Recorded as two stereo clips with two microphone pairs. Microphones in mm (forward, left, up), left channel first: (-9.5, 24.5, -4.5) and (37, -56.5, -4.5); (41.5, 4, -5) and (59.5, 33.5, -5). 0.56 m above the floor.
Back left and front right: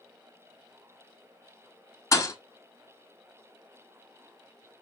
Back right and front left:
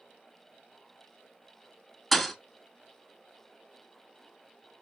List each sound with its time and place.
2.1 s a thud: 145° left, 0.5 m